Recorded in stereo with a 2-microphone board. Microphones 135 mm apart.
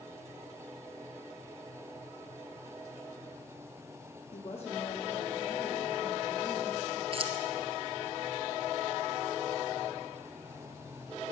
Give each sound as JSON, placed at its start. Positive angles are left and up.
{"t": 4.3, "sound": "a woman speaking", "side_deg": 55, "distance_m": 4.0}
{"t": 7.1, "sound": "keys jangling", "side_deg": -45, "distance_m": 1.4}